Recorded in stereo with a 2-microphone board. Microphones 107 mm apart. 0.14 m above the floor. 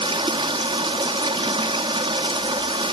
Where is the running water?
45° right (ahead or behind), 0.8 m.